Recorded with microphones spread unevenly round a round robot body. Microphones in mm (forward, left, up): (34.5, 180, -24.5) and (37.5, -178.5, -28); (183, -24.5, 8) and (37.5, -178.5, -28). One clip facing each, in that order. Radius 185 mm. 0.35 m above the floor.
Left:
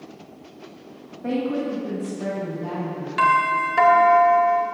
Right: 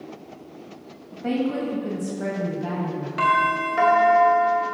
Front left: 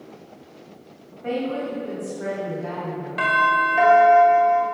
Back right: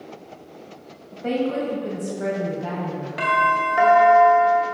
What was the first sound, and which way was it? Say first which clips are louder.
A woman speaking: even, back right 3 dB; 165° right.